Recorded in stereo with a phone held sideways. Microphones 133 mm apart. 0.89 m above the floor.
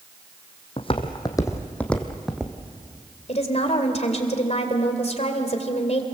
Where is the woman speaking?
55° left (ahead or behind), 3 m.